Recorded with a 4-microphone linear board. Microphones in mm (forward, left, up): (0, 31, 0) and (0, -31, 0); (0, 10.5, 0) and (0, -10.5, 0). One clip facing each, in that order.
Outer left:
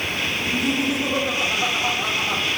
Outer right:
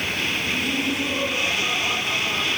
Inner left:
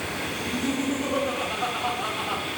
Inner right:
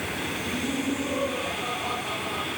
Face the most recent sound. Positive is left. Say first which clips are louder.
# outer left 2 dB, inner left 3 dB
turn(degrees=75)  # may be behind; listen again after turning